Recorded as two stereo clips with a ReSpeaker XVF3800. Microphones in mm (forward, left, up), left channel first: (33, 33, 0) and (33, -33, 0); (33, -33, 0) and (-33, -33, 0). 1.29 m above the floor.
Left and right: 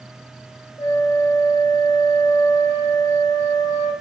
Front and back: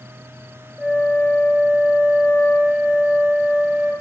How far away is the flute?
About 3 m.